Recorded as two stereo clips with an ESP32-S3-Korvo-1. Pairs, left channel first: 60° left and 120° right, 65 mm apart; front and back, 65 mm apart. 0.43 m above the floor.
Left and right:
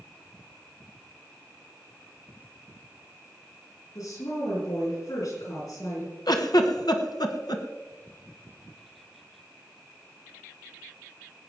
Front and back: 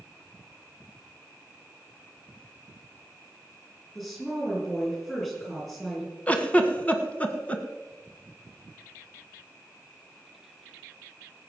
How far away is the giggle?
About 1.4 m.